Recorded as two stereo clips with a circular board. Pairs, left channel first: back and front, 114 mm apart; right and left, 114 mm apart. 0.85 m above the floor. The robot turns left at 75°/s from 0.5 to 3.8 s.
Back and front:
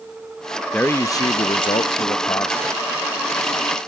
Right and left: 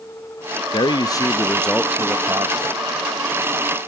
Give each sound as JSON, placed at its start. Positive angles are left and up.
{"t": 0.7, "sound": "a man speaking", "azimuth_deg": -105, "distance_m": 0.5}